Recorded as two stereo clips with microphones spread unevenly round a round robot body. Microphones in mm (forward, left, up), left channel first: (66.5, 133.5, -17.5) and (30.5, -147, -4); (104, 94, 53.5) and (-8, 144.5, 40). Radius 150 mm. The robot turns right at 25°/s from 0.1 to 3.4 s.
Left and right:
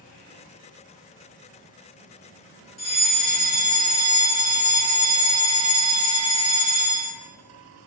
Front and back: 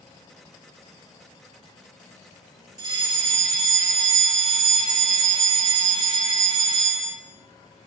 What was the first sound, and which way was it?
A fire alarm, 105° left.